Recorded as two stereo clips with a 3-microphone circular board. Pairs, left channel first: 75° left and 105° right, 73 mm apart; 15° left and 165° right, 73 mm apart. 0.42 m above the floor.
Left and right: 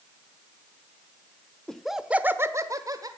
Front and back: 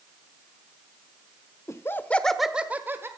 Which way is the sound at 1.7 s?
5° right.